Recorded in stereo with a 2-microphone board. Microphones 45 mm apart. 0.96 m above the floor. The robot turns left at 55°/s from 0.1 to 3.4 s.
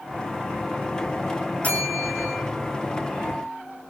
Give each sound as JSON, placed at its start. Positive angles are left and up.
{"t": 1.6, "sound": "a bell", "azimuth_deg": 40, "distance_m": 2.5}